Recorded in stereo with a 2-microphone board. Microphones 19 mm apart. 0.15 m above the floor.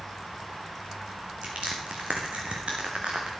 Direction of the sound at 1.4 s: 85° right.